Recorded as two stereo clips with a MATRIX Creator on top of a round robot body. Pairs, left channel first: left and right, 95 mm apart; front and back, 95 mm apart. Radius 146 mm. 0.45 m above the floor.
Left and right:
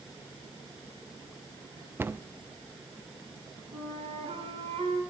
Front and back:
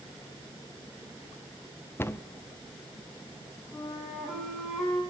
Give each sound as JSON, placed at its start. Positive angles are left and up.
{"t": 2.0, "sound": "a cupboard door", "azimuth_deg": -45, "distance_m": 0.8}
{"t": 3.7, "sound": "a flute", "azimuth_deg": -90, "distance_m": 6.0}